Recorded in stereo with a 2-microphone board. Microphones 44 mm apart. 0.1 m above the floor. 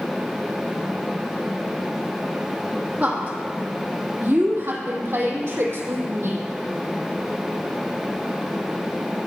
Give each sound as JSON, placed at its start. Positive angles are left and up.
{"t": 3.0, "sound": "a woman speaking", "side_deg": -40, "distance_m": 3.5}